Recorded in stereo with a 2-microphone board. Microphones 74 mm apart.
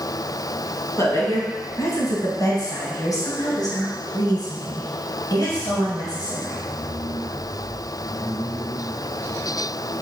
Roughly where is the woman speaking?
Left.